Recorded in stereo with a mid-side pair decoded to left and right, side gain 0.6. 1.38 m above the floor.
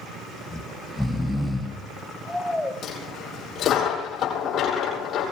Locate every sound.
0.5 s snoring: 5° left, 1.7 m
2.8 s a dropped coin: 50° left, 7.5 m